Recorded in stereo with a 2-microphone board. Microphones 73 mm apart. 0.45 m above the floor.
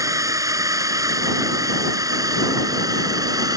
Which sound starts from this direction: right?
A drone, at 0.0 s.